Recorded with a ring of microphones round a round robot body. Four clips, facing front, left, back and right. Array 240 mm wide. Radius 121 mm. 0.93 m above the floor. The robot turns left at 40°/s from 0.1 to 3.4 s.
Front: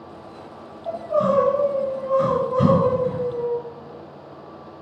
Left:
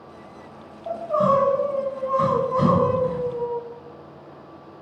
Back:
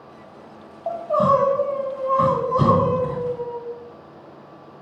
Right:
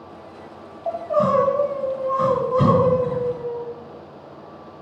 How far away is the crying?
About 2 m.